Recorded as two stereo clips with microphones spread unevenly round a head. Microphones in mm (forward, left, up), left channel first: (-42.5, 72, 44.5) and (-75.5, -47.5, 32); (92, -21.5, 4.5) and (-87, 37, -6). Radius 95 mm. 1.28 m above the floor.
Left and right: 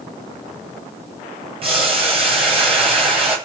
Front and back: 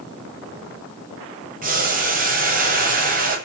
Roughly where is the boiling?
Behind right.